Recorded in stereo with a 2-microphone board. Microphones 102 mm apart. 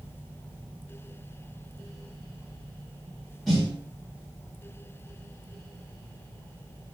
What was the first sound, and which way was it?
A snare drum, centre (ahead or behind).